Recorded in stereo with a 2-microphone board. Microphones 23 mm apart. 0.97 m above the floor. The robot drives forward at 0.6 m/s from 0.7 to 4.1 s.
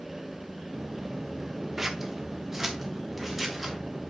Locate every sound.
1.8 s scissors: 15° right (ahead or behind), 0.8 m; by 3.8 s 5° right (ahead or behind), 1.8 m